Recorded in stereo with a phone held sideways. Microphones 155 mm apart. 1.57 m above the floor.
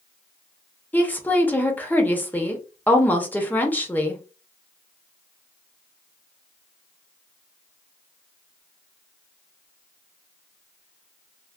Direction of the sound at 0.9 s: 10° left (ahead or behind).